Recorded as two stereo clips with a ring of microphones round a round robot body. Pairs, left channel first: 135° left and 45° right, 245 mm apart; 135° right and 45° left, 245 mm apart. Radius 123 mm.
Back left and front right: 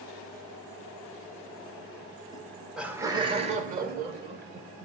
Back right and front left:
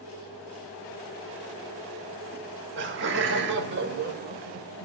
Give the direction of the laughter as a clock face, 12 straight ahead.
10 o'clock.